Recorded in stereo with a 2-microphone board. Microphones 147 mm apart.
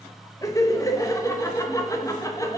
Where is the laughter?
20° left (ahead or behind), 0.8 m.